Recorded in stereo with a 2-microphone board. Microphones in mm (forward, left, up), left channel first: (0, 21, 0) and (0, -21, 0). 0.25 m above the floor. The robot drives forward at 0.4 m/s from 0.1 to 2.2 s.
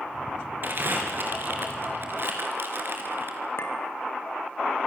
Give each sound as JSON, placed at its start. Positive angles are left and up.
{"t": 0.6, "sound": "crumpling", "side_deg": -50, "distance_m": 4.5}
{"t": 3.6, "sound": "a clink", "side_deg": 70, "distance_m": 3.5}